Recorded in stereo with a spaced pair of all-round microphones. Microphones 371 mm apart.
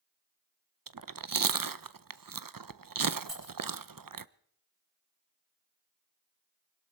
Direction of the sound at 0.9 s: 60° right (ahead or behind).